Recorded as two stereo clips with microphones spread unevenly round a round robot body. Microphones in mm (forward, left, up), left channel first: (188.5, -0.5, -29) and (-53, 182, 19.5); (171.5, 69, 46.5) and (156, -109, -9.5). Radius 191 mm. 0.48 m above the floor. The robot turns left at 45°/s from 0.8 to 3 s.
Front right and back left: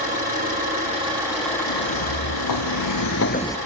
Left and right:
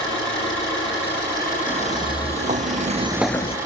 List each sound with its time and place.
0.0 s an engine running: 85° left, 8 m; by 3.7 s 15° right, 8 m
1.7 s footsteps: 10° right, 1.9 m; by 3.6 s 50° left, 0.7 m